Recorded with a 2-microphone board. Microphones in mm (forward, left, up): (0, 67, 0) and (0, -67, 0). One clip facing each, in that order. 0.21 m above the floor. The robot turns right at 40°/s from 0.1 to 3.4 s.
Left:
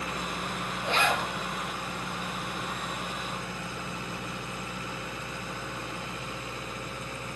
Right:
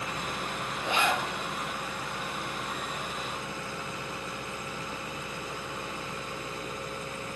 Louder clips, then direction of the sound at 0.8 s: Left 1 dB; 15° right (ahead or behind).